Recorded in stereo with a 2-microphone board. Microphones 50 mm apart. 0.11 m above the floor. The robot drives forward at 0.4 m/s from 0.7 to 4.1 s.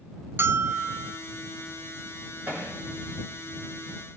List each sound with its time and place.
0.4 s a bell: 50° right (ahead or behind), 0.6 m
2.5 s hammering: 40° right (ahead or behind), 7 m; by 2.7 s 35° right (ahead or behind), 7 m